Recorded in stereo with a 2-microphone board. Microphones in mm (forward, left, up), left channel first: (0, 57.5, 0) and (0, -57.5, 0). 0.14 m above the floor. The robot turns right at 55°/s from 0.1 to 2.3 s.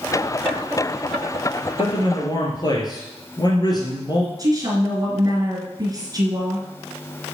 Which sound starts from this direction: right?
A woman speaking, at 4.4 s.